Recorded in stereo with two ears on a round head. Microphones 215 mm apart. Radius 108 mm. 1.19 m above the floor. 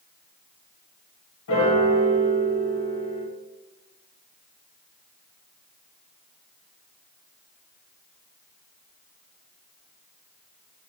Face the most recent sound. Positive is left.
turn(degrees=65)  # may be behind; listen again after turning